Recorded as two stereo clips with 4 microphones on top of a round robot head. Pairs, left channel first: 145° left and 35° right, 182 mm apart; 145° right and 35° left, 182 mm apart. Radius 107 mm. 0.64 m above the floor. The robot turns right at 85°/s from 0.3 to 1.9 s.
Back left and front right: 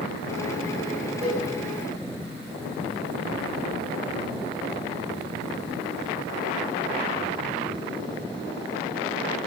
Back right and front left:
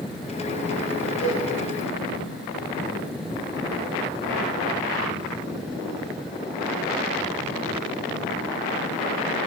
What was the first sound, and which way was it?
A cowbell, 115° right.